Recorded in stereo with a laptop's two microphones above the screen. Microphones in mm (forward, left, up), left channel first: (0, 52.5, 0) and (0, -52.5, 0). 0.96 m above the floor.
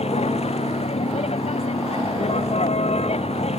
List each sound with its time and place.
0.0 s a vehicle: 85° left